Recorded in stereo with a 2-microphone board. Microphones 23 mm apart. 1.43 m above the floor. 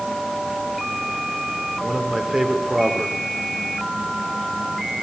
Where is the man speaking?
20° right (ahead or behind), 4.5 m.